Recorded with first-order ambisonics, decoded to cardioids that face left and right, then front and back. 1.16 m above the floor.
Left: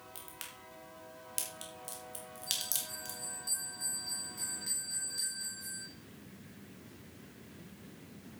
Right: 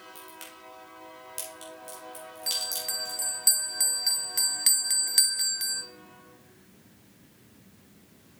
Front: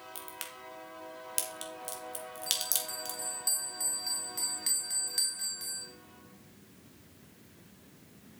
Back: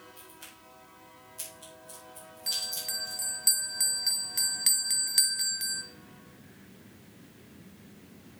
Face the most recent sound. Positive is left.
turn(degrees=-115)